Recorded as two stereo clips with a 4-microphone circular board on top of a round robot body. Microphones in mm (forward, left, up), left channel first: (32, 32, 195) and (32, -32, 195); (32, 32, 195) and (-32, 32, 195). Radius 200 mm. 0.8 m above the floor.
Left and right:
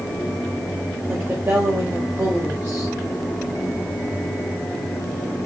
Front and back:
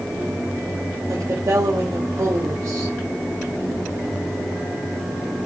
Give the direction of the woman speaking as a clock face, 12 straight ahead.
5 o'clock.